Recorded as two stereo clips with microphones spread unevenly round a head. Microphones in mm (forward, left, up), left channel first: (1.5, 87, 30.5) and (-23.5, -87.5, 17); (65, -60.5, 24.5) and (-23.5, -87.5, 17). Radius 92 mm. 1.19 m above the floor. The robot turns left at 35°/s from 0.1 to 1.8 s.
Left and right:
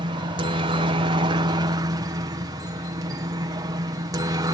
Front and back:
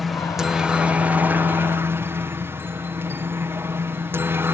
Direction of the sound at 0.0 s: 75° right.